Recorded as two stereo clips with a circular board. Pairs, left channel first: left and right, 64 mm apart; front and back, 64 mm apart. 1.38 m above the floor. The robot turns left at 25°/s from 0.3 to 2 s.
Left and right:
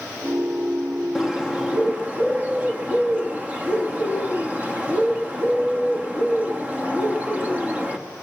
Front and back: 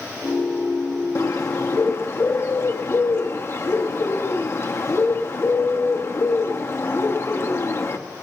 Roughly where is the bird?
Ahead.